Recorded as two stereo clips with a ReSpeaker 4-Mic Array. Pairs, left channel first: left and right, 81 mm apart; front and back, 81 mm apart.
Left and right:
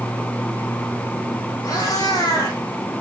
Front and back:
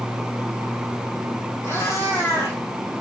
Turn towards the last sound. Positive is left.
turn(degrees=55)